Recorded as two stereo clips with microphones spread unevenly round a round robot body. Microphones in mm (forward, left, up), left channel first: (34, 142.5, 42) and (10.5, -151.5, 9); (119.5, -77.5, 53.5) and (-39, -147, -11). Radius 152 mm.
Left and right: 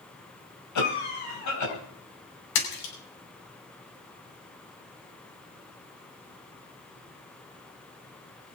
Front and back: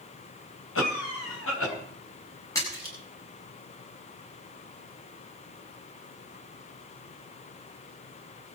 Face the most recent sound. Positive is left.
turn(degrees=105)